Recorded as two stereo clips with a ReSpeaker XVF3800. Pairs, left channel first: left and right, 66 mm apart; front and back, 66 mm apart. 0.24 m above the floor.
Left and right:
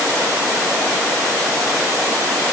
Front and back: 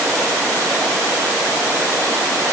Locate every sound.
Only background noise.